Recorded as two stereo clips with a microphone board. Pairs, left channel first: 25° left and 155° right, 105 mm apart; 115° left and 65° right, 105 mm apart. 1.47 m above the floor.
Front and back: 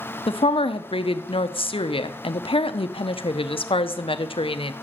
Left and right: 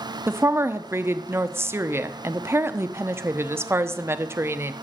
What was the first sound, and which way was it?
A woman speaking, 5° right.